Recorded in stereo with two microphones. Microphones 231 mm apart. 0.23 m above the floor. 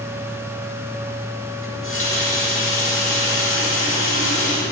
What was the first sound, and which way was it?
A running tap, 70° left (ahead or behind).